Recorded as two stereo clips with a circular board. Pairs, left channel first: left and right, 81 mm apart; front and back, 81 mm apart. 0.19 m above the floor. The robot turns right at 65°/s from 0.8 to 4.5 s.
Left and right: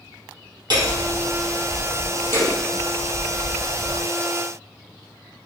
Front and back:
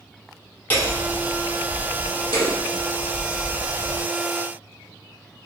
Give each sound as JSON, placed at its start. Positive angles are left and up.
{"t": 0.7, "sound": "hammering", "azimuth_deg": -65, "distance_m": 5.0}